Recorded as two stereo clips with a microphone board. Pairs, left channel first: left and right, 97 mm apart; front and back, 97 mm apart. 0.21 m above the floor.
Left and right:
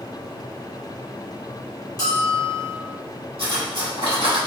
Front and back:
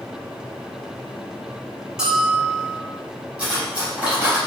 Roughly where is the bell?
Left.